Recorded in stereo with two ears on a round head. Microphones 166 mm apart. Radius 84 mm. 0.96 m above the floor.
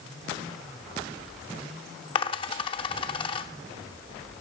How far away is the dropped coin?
About 0.6 m.